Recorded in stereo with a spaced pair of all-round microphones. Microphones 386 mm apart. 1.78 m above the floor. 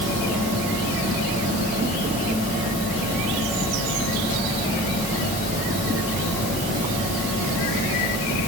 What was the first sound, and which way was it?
Only background noise.